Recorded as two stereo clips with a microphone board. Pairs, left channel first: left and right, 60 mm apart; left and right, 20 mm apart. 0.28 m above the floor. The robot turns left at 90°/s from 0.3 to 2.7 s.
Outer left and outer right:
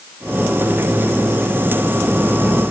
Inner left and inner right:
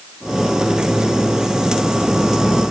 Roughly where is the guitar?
I don't hear a guitar.